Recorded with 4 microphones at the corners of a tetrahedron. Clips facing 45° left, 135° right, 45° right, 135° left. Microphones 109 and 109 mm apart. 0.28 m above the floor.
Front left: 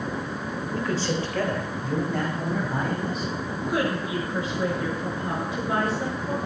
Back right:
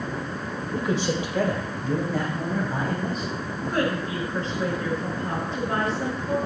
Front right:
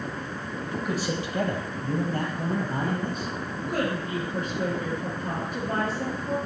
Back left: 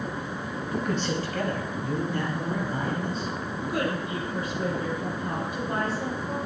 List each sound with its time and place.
0.7 s a man speaking: 140° right, 1.3 m; by 3.3 s 45° right, 2.5 m
3.7 s a woman speaking: 35° right, 5 m